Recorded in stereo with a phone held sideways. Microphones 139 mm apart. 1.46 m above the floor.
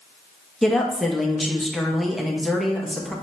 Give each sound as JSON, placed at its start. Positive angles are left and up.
{"t": 0.6, "sound": "a woman speaking", "side_deg": 0, "distance_m": 0.7}